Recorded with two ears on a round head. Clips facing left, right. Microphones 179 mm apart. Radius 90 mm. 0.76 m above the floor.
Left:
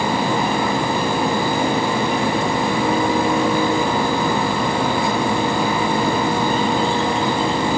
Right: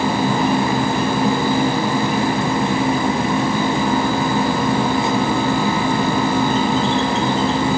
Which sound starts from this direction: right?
An insect, at 0.0 s.